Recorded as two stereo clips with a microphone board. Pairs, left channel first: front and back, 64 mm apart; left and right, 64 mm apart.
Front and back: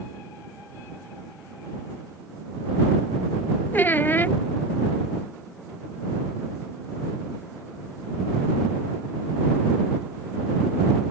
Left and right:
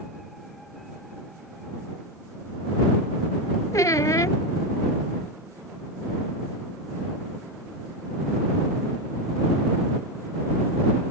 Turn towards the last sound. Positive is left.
turn(degrees=60)